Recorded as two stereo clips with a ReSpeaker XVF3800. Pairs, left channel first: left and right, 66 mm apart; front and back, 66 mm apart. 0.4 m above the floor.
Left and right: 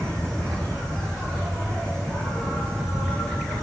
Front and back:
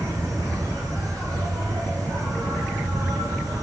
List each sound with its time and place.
0.0 s an insect: 165° left, 7.5 m